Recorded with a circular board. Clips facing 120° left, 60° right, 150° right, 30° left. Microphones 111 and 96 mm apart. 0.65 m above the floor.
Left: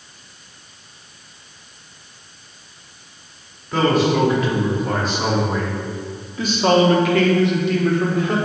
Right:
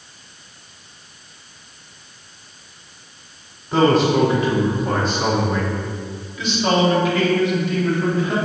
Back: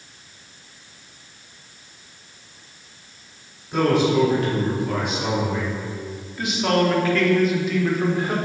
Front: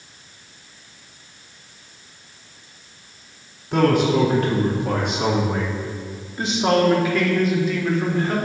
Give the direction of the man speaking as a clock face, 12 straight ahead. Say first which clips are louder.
Right 2 dB, front 1 dB; 12 o'clock.